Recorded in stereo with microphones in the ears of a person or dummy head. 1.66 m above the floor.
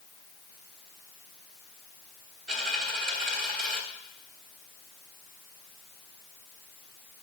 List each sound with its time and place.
2.5 s a dropped coin: 50° right (ahead or behind), 1.9 m